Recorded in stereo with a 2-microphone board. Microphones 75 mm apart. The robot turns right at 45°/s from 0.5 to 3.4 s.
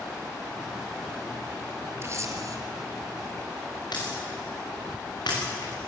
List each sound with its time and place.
2.0 s a camera shutter: 35° right (ahead or behind), 2 m; by 2.6 s 50° right (ahead or behind), 2 m
3.9 s breaking glass: 75° left (ahead or behind), 7 m